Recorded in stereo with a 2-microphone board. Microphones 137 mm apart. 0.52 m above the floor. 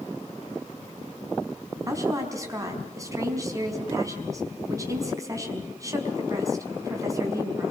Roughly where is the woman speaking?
Right.